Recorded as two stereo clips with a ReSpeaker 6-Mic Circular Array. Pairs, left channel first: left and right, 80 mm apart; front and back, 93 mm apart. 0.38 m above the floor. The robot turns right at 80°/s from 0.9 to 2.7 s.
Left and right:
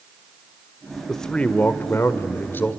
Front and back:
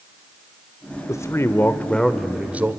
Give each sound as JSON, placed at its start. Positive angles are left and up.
{"t": 1.1, "sound": "a man speaking", "azimuth_deg": 5, "distance_m": 1.1}